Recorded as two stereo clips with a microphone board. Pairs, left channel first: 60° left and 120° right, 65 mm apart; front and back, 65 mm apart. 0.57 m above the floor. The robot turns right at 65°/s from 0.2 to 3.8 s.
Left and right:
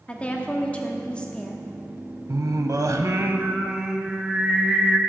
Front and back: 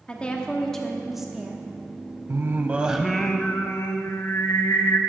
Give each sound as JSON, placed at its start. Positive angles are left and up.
{"t": 0.1, "sound": "a woman speaking", "azimuth_deg": 35, "distance_m": 0.9}
{"t": 2.3, "sound": "singing", "azimuth_deg": -145, "distance_m": 0.6}